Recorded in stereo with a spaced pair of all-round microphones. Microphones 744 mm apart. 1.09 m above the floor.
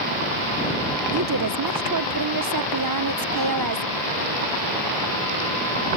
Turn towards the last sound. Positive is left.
turn(degrees=-30)  # may be behind; listen again after turning